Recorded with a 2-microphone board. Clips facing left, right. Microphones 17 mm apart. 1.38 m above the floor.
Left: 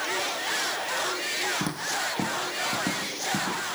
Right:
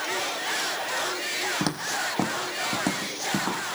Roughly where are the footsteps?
Right.